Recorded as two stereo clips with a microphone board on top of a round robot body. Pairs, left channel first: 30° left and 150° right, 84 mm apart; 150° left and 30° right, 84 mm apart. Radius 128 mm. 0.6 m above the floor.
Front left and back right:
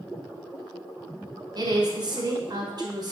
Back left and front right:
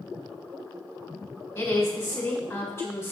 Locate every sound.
1.6 s a woman speaking: 155° right, 1.5 m